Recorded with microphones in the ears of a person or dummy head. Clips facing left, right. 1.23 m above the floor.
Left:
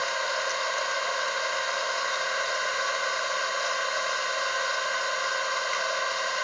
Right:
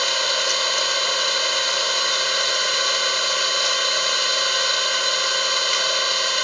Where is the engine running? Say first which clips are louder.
Right 4 dB; 55° right (ahead or behind).